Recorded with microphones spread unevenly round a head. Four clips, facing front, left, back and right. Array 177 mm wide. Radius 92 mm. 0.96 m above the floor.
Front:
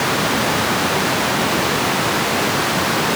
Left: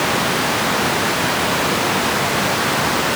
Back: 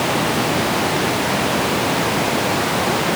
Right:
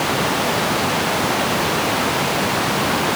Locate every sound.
Only background noise.